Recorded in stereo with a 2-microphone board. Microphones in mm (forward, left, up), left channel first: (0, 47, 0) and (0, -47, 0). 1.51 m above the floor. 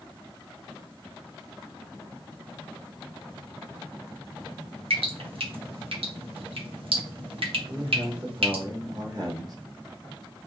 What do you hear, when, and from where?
4.9 s dripping: 75° right (ahead or behind), 1.4 m
7.7 s a man speaking: 45° right (ahead or behind), 1.6 m